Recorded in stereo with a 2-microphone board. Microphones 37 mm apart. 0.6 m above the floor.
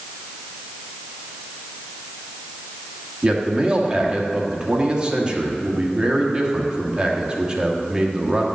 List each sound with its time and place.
3.2 s a man speaking: 30° right (ahead or behind), 1.3 m